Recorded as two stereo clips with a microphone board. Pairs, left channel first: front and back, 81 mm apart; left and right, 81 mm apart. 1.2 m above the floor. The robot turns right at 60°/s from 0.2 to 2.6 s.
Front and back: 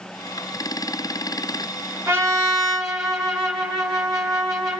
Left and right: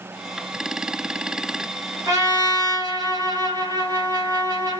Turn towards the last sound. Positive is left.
turn(degrees=-95)